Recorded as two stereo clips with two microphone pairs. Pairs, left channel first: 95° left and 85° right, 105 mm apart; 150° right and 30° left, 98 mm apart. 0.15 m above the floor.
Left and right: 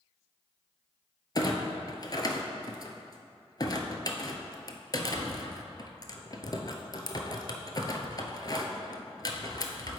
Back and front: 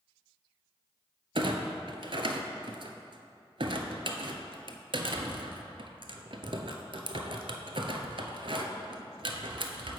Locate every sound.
1.4 s a clunk: 50° left, 0.5 m